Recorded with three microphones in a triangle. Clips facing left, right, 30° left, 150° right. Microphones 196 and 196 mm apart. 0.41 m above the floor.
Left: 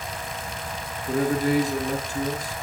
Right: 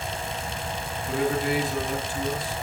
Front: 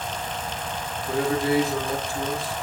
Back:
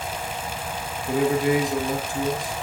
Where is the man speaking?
135° left, 7.5 m.